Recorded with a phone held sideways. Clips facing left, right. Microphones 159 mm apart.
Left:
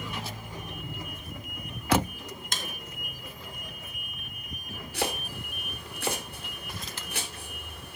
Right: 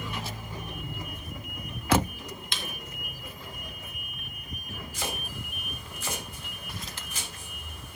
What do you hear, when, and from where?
2.5 s a snare drum: 45° left (ahead or behind), 0.8 m
4.9 s chopping: 65° left (ahead or behind), 2 m